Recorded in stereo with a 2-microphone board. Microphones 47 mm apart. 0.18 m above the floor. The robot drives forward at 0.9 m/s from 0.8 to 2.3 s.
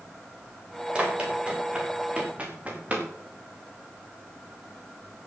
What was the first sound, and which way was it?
Running footsteps, 20° right (ahead or behind).